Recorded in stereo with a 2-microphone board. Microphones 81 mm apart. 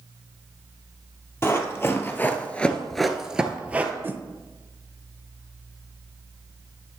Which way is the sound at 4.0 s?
30° right (ahead or behind).